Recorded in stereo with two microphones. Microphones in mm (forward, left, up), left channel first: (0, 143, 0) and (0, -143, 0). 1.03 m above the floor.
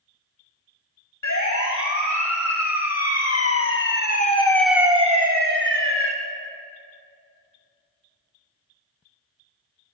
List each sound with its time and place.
1.2 s a siren: 75° left (ahead or behind), 3.5 m; by 6.1 s 50° right (ahead or behind), 1.8 m